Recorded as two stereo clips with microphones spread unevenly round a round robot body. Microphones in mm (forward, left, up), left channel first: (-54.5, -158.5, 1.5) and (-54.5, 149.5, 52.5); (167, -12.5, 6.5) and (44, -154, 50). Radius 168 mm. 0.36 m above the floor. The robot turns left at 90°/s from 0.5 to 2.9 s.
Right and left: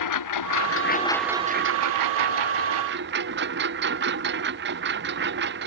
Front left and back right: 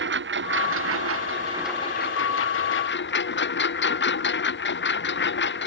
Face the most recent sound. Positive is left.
turn(degrees=30)